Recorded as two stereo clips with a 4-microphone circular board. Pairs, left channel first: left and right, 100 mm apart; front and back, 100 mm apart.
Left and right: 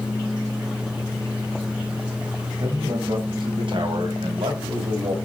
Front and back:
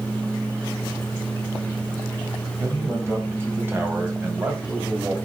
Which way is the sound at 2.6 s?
120° right.